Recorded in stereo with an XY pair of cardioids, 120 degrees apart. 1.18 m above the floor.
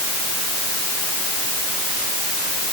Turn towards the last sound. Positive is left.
No sound to turn to.